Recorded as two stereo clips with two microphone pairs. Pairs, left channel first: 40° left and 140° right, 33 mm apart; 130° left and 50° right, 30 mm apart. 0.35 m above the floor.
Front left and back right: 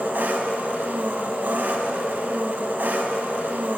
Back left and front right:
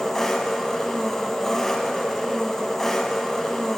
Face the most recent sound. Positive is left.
turn(degrees=-155)